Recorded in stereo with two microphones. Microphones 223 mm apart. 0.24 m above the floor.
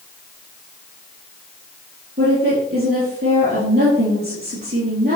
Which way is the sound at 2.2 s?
45° right (ahead or behind).